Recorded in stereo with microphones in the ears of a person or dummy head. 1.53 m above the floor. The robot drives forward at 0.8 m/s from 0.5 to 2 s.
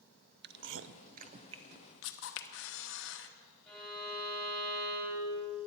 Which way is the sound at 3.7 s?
5° left (ahead or behind).